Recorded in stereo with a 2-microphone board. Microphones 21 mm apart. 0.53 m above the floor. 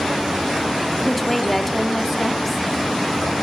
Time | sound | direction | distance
1.0 | a woman speaking | 5° left (ahead or behind) | 1.3 m